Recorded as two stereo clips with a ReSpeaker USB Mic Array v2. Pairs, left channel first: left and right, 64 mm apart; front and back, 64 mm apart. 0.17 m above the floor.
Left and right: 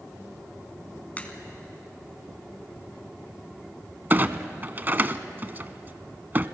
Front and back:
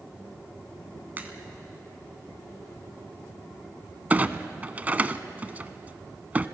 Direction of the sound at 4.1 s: 130° right.